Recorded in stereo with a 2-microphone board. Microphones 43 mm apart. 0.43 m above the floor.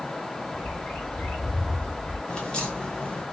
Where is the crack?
25° left (ahead or behind), 2 m.